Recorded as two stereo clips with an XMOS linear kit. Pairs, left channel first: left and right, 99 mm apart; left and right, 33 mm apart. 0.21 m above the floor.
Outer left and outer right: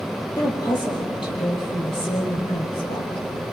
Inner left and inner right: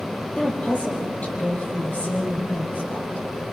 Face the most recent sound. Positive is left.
turn(degrees=70)  # may be behind; listen again after turning